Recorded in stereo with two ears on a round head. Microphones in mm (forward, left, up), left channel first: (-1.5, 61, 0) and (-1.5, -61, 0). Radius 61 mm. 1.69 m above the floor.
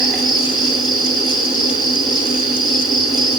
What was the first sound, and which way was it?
An insect, centre (ahead or behind).